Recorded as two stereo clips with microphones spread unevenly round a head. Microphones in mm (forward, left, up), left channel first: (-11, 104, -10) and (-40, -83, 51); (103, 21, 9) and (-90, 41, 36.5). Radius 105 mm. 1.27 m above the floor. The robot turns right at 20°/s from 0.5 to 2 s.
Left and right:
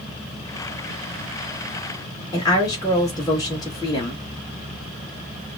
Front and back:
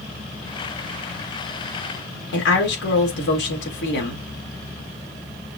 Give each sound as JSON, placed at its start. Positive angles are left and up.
{"t": 2.3, "sound": "a woman speaking", "azimuth_deg": 10, "distance_m": 2.5}